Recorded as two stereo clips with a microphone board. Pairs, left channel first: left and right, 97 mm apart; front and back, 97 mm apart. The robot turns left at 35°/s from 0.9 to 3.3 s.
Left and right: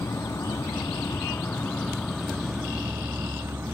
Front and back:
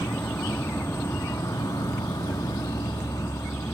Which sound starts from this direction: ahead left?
An insect, at 0.0 s.